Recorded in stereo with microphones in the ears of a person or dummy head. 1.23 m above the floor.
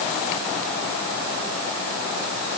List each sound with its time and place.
Only background noise.